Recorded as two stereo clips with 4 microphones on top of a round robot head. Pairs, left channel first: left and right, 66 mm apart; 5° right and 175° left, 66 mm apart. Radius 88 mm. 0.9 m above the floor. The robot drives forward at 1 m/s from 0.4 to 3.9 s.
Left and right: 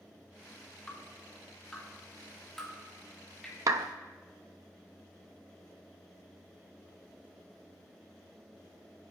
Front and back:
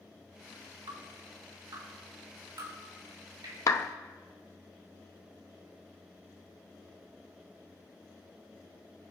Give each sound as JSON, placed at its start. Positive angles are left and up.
{"t": 0.9, "sound": "dripping", "azimuth_deg": 165, "distance_m": 1.9}
{"t": 3.7, "sound": "a clap", "azimuth_deg": -50, "distance_m": 0.6}